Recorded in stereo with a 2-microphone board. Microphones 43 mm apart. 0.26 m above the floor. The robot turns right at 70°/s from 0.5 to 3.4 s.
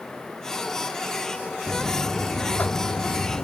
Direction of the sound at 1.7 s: 15° right.